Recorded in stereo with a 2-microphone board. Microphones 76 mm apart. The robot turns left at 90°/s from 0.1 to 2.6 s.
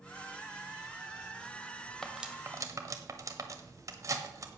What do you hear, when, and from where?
2.0 s cutlery clinking: 5° left (ahead or behind), 1.2 m; by 4.5 s 45° right (ahead or behind), 1.2 m